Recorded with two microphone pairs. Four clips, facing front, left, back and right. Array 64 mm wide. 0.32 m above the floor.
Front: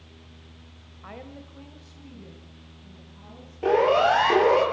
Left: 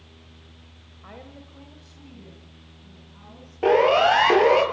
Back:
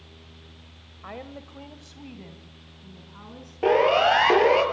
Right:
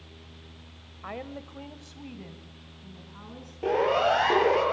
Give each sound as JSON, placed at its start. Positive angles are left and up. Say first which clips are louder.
{"t": 1.0, "sound": "a woman speaking", "louder": "right 6 dB, back 3 dB", "azimuth_deg": -115, "distance_m": 1.6}
{"t": 3.6, "sound": "a siren", "louder": "left 7 dB, even", "azimuth_deg": 130, "distance_m": 7.5}